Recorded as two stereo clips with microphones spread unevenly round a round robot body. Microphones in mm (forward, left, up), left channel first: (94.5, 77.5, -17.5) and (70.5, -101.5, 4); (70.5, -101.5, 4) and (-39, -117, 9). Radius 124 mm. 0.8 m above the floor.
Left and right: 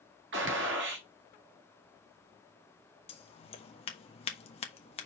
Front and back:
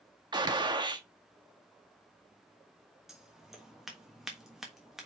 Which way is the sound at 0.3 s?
130° right.